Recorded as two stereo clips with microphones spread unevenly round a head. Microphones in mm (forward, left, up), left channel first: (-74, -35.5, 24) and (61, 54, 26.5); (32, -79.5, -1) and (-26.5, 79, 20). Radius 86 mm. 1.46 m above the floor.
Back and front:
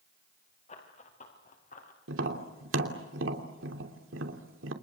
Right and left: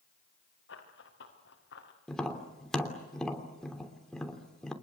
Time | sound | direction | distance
0.7 | running footsteps | 95° right | 5.5 m
2.1 | tapping | 20° left | 3 m